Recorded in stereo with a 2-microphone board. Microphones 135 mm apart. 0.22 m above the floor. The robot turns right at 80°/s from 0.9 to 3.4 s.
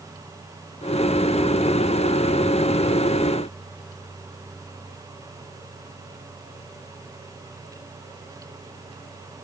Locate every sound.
Only background noise.